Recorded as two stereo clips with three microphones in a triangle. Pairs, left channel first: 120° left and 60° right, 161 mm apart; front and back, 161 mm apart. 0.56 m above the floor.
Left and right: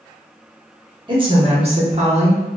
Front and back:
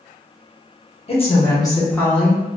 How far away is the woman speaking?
About 1.1 m.